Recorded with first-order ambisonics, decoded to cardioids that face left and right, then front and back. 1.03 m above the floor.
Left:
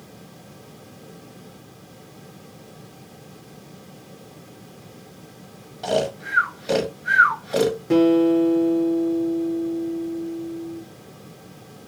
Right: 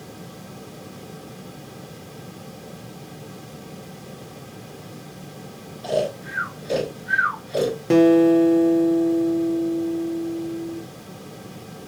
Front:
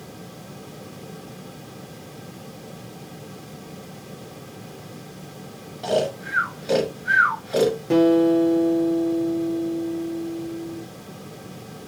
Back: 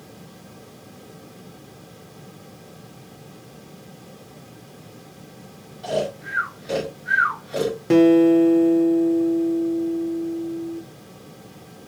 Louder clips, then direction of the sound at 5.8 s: Left 1 dB, front 2 dB; 70° left.